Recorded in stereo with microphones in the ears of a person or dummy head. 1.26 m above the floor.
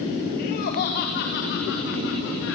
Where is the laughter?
50° left (ahead or behind), 3.5 m; by 2.5 s 70° left (ahead or behind), 5.5 m.